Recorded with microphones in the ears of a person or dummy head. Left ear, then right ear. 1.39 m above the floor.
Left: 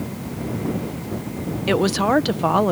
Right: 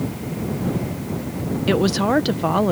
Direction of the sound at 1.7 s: 15° left (ahead or behind).